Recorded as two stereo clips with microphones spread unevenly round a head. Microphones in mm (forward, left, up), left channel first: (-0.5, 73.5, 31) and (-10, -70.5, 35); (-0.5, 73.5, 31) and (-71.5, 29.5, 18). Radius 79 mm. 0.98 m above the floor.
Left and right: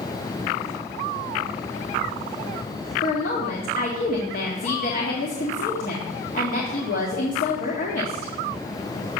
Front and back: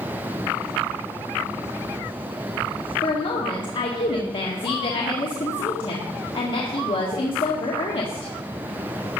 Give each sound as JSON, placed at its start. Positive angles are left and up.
{"t": 3.0, "sound": "a woman speaking", "azimuth_deg": 55, "distance_m": 1.8}